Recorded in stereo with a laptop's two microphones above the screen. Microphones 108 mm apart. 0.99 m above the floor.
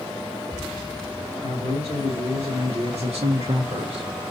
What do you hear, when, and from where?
1.4 s a man speaking: 65° right (ahead or behind), 2.5 m; by 4.3 s 45° right (ahead or behind), 0.7 m